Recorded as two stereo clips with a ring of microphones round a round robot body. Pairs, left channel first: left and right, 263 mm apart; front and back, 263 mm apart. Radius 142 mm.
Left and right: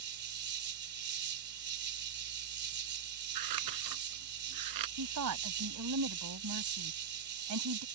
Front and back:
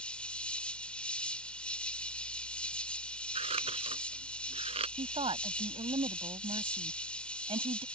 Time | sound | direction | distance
0.0 | an insect | 85° right | ?
3.4 | scissors | 110° right | ?
5.0 | a woman speaking | 110° right | ?